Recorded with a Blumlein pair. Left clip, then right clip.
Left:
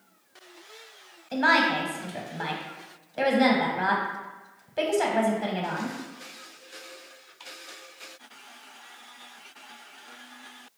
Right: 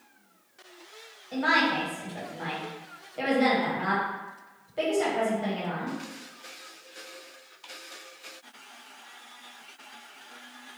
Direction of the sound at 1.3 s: 20° left.